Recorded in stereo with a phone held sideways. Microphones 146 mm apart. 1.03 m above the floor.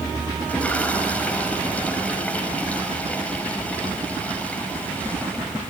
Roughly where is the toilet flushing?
Centre.